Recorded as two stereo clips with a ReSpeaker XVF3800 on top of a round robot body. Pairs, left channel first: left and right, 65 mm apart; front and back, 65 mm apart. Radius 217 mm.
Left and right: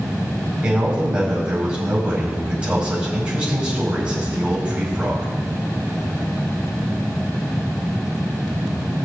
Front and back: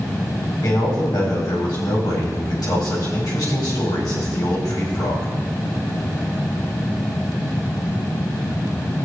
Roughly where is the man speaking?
Ahead.